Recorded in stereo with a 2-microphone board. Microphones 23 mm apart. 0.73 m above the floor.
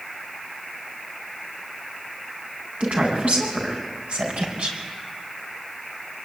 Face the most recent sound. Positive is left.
turn(degrees=-65)  # may be behind; listen again after turning